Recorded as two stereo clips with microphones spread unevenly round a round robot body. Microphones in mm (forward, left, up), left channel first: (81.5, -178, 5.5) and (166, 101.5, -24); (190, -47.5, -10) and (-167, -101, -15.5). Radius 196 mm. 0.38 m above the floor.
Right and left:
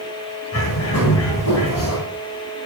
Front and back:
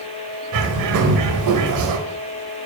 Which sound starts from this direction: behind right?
A bird, at 0.5 s.